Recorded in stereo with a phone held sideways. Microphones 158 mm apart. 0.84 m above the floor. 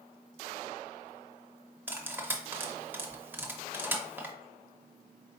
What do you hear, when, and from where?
1.9 s cutlery clinking: 15° right (ahead or behind), 0.8 m